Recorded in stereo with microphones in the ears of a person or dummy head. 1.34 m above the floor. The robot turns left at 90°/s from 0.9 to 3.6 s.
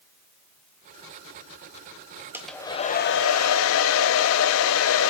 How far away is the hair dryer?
About 0.7 m.